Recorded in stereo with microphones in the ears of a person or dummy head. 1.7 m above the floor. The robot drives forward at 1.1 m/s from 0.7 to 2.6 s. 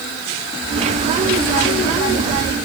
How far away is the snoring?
I don't hear snoring.